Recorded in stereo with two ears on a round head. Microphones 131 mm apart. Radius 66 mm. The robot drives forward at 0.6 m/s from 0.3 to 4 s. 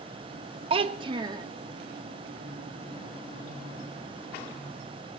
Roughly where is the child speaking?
Right.